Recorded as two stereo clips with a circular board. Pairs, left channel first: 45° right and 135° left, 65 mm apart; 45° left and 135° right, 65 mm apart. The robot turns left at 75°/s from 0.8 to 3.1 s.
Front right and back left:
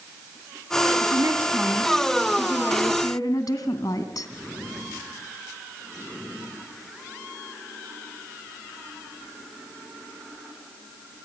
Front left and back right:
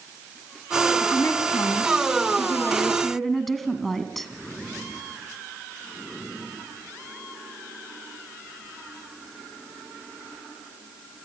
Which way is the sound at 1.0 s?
115° left.